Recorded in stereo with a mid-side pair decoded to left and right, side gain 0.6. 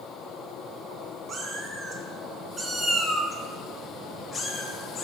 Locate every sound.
1.3 s a cat meowing: 40° right, 1.7 m; by 5.0 s 45° left, 1.5 m